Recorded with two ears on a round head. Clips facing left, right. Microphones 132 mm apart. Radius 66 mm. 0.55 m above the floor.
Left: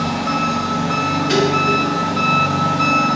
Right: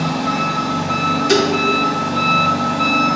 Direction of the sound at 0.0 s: 10° right (ahead or behind).